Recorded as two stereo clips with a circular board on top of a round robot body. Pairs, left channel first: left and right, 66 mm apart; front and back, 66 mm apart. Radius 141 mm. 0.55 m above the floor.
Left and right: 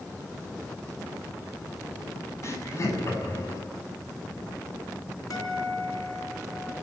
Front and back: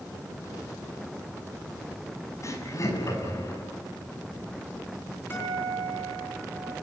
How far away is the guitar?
About 9 m.